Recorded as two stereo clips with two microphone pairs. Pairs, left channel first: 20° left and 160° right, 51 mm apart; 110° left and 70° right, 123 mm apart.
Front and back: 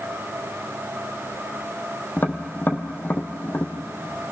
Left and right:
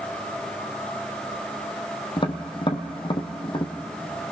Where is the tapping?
70° left, 1.5 m.